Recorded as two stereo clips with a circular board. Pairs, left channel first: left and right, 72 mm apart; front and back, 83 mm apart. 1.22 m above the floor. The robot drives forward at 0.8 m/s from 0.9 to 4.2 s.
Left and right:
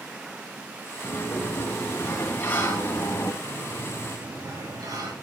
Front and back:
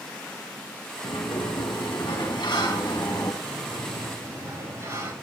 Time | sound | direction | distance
1.0 | a sliding door | 25° left | 5.5 m
3.4 | a sliding door | 120° right | 7.5 m